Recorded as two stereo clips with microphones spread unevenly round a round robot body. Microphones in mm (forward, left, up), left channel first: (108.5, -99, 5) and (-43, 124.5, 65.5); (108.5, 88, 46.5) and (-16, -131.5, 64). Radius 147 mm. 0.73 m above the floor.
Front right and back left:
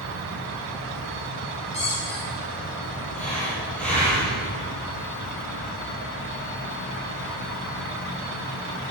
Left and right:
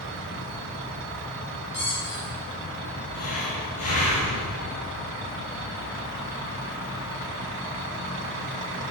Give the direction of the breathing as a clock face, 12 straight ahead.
11 o'clock.